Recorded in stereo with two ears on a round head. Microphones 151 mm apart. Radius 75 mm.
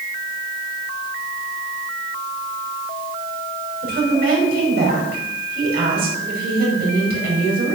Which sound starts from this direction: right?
A woman speaking, at 3.8 s.